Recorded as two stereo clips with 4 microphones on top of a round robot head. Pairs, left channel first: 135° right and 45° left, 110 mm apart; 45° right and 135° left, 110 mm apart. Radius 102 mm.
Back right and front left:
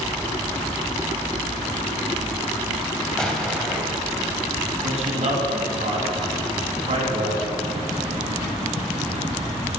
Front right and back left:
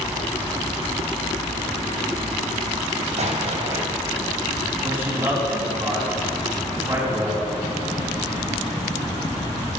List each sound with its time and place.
3.2 s an explosion: 145° left, 3 m
4.8 s a man speaking: 65° left, 4 m